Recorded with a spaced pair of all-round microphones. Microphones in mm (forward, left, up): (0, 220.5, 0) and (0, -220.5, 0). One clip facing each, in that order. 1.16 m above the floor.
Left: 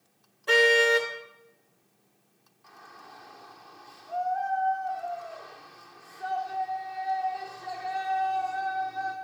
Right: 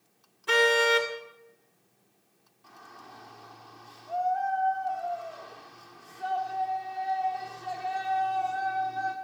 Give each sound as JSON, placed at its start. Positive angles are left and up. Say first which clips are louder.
{"t": 0.5, "sound": "a car horn", "louder": "left 2 dB", "side_deg": -20, "distance_m": 2.5}
{"t": 2.6, "sound": "a shout", "louder": "right 1 dB", "side_deg": -50, "distance_m": 4.0}